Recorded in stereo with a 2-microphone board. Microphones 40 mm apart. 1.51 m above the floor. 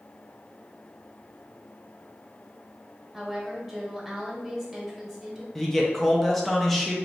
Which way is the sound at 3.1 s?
Centre (ahead or behind).